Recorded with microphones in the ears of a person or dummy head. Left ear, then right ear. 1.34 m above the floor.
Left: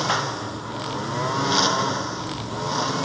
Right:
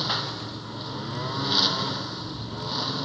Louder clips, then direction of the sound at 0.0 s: Left 4 dB; 30° left (ahead or behind).